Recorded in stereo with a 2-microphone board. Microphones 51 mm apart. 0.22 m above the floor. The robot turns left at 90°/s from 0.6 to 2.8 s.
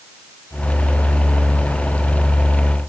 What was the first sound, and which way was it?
Only background noise.